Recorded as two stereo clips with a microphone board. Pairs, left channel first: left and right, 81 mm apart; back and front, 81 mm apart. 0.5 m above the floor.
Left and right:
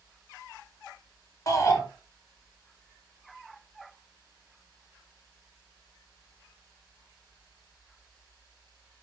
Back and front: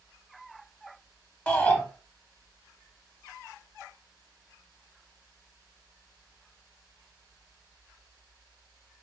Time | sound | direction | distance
1.5 | a shout | 110° left | 0.9 m